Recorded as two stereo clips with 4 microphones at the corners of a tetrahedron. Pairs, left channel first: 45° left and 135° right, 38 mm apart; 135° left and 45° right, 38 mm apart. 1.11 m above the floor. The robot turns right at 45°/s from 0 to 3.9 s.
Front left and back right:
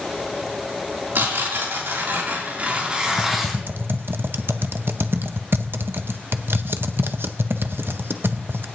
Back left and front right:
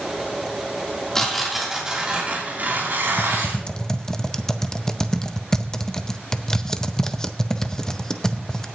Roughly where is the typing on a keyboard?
Behind.